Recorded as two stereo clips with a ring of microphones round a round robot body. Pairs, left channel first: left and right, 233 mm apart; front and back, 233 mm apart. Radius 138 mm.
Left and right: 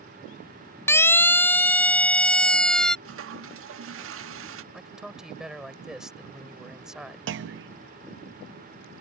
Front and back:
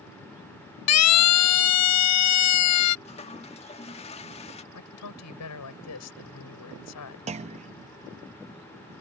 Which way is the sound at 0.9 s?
10° left.